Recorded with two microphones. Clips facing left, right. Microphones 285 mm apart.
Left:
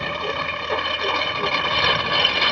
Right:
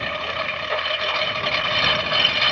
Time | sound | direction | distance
0.0 | a lawn mower | 50° left (ahead or behind) | ?